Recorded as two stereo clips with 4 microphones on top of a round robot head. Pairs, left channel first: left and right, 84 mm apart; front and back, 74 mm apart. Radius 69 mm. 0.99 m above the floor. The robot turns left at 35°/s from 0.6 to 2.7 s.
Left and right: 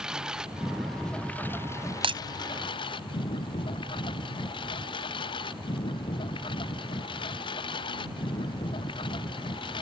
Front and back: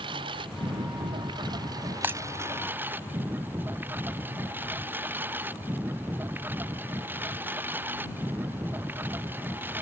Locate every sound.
0.0 s a lawn mower: 170° right; by 9.8 s 115° left
2.0 s breaking glass: 110° right; by 2.2 s 115° right